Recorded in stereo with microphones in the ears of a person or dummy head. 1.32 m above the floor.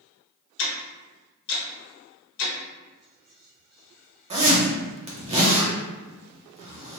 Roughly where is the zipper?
Right.